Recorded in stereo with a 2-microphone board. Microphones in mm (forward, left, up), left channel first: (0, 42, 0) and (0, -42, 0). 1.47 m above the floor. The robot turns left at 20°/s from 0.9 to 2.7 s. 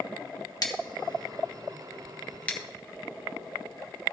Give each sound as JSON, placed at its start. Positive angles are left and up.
{"t": 0.6, "sound": "scissors", "side_deg": 50, "distance_m": 1.4}